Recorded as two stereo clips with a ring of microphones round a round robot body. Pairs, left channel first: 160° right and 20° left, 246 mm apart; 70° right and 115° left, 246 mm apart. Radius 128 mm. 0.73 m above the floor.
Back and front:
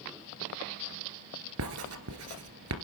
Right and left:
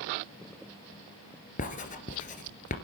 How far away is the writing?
About 2 m.